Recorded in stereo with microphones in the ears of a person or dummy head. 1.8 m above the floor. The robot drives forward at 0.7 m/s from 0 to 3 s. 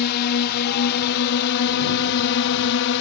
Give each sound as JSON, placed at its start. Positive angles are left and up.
{"t": 0.0, "sound": "a drone", "side_deg": 55}